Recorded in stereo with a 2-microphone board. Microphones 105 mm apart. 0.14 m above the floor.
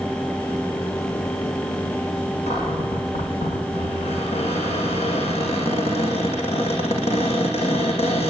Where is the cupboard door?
80° left, 8 m.